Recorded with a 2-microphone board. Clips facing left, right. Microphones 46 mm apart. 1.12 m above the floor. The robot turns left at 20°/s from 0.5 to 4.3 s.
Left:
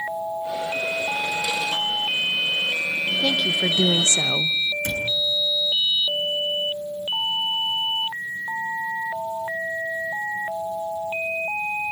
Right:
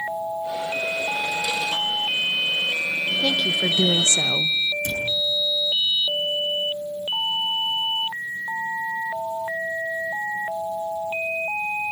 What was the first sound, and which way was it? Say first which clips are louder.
A woman speaking: even; 5° left (ahead or behind).